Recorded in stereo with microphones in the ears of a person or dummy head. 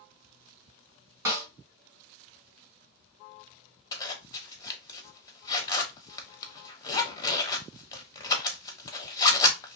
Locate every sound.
1.2 s a snare drum: 20° right (ahead or behind), 1.6 m
3.9 s a zipper: 20° left (ahead or behind), 0.8 m